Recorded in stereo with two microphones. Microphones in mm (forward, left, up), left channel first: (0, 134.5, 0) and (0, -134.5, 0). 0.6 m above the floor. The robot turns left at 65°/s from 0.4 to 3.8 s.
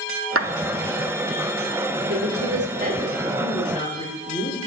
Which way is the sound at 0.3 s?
55° right (ahead or behind).